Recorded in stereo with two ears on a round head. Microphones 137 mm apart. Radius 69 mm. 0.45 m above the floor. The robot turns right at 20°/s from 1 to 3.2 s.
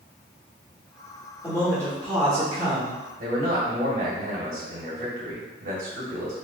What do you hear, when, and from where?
1.4 s a man speaking: 150° left, 1.1 m; by 3.0 s straight behind, 1.1 m
3.2 s a man speaking: 60° right (ahead or behind), 1.9 m